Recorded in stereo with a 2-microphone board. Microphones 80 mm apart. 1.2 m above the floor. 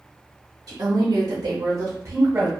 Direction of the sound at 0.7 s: 50° right (ahead or behind).